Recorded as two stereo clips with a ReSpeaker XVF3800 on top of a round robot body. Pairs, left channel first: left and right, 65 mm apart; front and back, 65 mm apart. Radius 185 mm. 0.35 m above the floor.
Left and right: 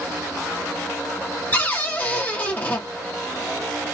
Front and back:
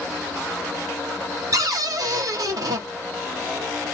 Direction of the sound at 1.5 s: 155° left.